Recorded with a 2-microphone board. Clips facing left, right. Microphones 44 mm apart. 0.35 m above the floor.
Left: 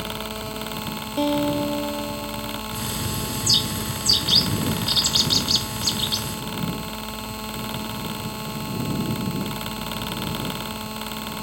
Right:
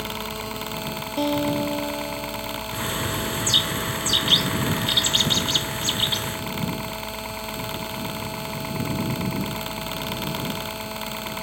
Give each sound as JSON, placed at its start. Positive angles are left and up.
{"t": 0.0, "sound": "a helicopter", "side_deg": -65}
{"t": 1.2, "sound": "a guitar", "side_deg": 5}
{"t": 2.7, "sound": "a bird", "side_deg": -35}